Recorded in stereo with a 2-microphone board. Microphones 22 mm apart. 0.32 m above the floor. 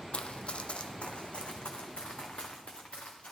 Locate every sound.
0.1 s running footsteps: 60° left (ahead or behind), 0.6 m